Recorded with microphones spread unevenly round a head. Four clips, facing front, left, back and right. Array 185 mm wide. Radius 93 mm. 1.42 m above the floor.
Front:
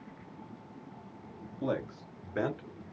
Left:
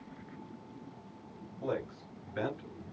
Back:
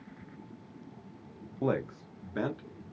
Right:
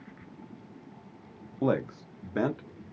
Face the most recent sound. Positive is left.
turn(degrees=-80)